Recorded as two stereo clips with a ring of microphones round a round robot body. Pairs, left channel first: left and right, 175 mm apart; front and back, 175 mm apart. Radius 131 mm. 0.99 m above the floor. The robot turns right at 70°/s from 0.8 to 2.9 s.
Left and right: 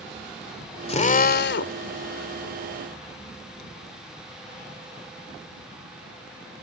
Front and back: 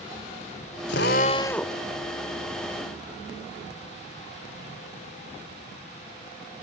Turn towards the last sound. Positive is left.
turn(degrees=175)